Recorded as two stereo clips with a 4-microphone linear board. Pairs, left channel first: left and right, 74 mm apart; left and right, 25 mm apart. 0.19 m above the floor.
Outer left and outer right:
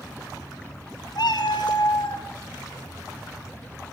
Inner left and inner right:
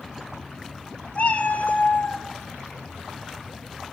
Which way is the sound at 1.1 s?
75° left (ahead or behind).